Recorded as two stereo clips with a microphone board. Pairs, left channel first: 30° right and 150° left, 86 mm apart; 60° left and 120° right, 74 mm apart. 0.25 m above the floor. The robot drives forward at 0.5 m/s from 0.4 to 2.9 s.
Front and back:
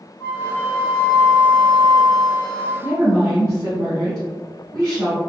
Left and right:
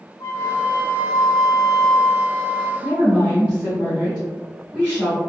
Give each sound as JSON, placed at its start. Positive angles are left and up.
{"t": 0.2, "sound": "a flute", "azimuth_deg": 40, "distance_m": 0.8}
{"t": 2.8, "sound": "a woman speaking", "azimuth_deg": 180, "distance_m": 1.5}